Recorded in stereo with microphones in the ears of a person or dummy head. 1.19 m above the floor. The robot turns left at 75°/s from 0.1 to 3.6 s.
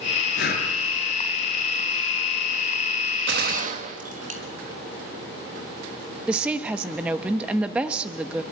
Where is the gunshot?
70° right (ahead or behind), 1.3 m; by 4.4 s 50° right (ahead or behind), 1.3 m.